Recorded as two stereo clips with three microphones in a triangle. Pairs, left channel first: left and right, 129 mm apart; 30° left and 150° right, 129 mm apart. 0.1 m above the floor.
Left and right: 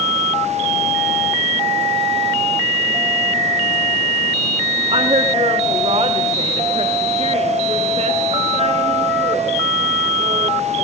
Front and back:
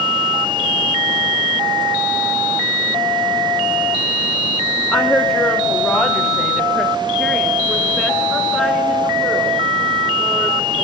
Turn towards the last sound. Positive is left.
turn(degrees=-65)